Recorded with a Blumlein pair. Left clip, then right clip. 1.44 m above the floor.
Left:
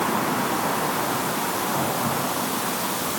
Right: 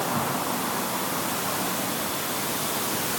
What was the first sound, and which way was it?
Only background noise.